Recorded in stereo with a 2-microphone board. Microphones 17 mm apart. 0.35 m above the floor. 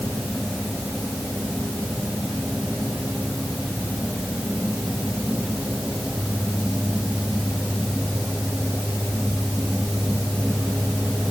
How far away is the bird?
No bird in this recording.